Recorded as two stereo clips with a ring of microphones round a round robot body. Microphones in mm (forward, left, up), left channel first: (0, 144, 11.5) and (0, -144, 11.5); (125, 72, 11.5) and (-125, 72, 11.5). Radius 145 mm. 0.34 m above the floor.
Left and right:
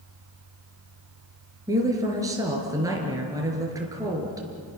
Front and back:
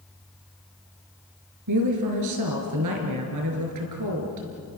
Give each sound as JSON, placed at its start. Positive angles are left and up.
{"t": 1.7, "sound": "a woman speaking", "azimuth_deg": -170, "distance_m": 5.0}